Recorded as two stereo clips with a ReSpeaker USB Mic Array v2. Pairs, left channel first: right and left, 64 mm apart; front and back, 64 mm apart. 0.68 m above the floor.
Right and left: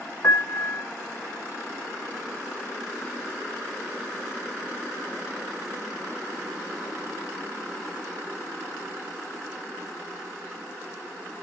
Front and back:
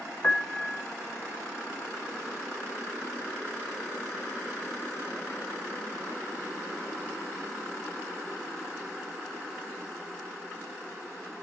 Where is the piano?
50° right, 1.1 m.